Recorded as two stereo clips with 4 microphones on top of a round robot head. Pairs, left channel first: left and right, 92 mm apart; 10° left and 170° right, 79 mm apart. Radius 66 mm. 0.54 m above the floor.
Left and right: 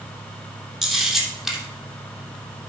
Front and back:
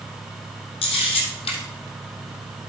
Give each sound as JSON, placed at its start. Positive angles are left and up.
{"t": 0.8, "sound": "a camera shutter", "azimuth_deg": 0, "distance_m": 2.5}